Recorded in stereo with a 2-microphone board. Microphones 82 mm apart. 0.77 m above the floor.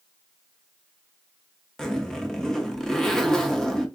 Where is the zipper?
10° left (ahead or behind), 0.6 m.